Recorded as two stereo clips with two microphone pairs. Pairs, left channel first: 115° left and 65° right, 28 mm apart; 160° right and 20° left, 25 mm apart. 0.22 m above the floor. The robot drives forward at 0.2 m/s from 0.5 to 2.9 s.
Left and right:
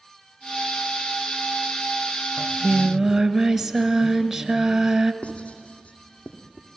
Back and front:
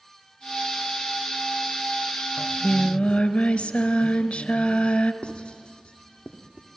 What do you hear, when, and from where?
2.4 s singing: 145° right, 1.0 m
5.2 s writing: 160° left, 2.5 m